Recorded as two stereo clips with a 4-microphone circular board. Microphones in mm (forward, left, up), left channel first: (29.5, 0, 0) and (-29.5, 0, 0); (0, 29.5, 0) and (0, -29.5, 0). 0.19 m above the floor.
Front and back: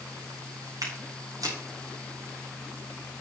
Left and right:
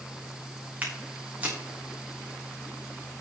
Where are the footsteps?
155° right, 6 m.